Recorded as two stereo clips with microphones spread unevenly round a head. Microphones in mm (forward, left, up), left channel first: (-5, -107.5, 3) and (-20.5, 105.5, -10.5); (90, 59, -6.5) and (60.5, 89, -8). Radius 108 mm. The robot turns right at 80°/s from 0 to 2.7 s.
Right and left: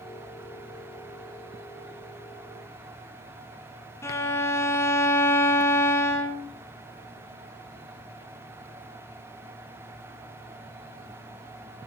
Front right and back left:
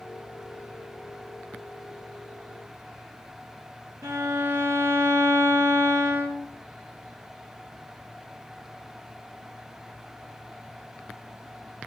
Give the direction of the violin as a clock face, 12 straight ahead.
5 o'clock.